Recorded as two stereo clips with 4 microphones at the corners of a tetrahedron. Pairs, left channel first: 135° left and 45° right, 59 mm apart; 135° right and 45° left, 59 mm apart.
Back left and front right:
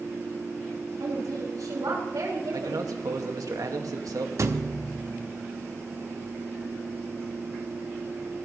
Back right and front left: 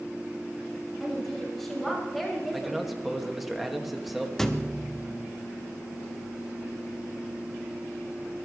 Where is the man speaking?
45° right, 2 m.